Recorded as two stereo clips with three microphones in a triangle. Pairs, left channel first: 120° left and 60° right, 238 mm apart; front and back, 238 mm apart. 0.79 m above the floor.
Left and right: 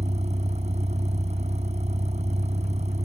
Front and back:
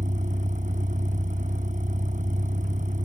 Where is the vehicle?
125° right.